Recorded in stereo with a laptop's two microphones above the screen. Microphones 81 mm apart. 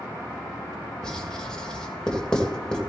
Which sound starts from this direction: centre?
Writing, at 1.0 s.